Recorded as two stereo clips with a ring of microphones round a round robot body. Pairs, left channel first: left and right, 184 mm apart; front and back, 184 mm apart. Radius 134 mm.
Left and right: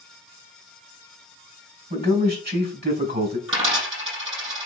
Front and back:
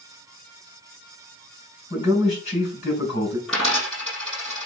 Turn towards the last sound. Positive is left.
turn(degrees=-90)